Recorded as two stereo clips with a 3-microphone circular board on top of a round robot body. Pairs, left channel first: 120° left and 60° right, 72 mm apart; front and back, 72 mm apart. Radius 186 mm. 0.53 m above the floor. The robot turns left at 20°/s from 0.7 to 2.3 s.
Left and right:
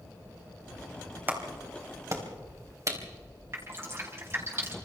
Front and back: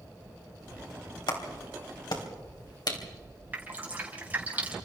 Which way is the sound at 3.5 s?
115° right.